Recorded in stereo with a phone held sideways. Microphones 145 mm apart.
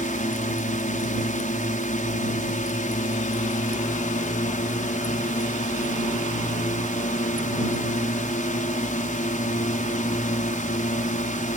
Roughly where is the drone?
Left.